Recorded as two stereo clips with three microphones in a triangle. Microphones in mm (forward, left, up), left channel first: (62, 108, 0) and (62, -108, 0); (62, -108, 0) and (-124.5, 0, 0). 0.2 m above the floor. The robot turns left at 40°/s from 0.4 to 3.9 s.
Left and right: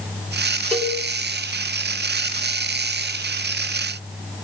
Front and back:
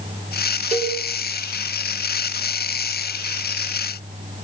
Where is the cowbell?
175° left, 1.4 m; by 1.0 s 160° left, 1.4 m.